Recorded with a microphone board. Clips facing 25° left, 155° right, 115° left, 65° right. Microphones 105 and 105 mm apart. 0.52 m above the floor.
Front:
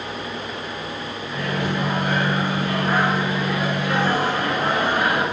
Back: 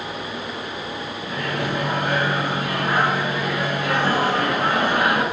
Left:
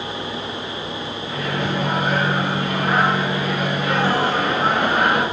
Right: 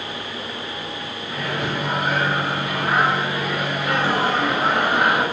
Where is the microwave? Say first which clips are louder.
Front 1 dB, left 1 dB; 155° right, 4.5 m.